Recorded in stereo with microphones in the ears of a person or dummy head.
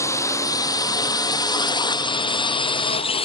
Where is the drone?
20° left (ahead or behind); by 3.2 s 35° left (ahead or behind).